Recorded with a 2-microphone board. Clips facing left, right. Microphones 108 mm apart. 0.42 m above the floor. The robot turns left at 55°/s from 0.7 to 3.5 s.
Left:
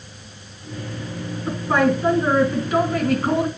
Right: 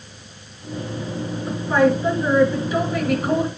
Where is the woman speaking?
135° left, 3 m; by 3.5 s 20° left, 3 m.